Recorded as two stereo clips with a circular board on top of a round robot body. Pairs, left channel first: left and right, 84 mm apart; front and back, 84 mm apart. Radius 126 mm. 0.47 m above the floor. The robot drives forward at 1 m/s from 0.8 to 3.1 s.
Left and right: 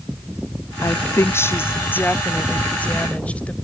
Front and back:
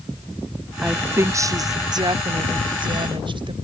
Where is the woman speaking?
110° left; by 3.5 s 165° left.